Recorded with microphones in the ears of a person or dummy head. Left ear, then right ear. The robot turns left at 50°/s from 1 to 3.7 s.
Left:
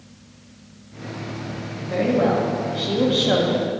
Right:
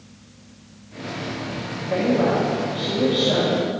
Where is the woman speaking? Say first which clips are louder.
Even; 165° right, 1.6 m; by 3.7 s 105° left, 1.6 m.